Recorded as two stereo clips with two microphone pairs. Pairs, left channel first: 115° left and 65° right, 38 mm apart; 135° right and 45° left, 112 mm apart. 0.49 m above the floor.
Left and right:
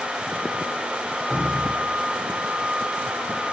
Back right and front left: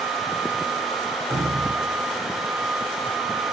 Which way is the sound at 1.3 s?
155° right.